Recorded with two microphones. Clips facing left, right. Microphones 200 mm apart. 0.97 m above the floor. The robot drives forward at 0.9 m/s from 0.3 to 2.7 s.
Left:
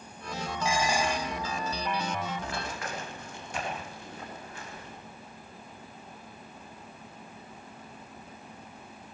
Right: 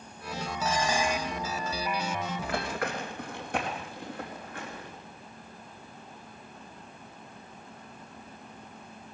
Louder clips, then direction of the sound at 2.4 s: Right 4 dB; 60° right (ahead or behind).